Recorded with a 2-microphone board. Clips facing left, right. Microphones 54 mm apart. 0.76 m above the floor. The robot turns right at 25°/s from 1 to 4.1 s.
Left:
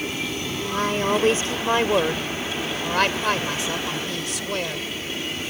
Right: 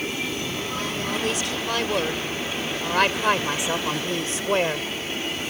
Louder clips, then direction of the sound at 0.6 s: Left 5 dB; 135° left.